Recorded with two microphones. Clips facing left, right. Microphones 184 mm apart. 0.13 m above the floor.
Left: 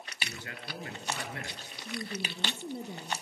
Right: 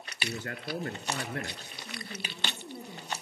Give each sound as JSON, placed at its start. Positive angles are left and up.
{"t": 0.2, "sound": "a man speaking", "side_deg": -50, "distance_m": 2.0}
{"t": 1.9, "sound": "a woman speaking", "side_deg": 35, "distance_m": 3.0}